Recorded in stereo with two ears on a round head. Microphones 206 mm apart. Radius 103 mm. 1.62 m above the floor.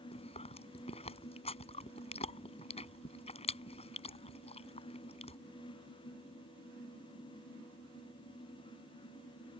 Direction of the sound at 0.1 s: 25° left (ahead or behind).